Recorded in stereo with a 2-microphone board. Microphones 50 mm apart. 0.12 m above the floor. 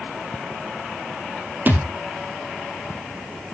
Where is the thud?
40° right (ahead or behind), 1.8 m.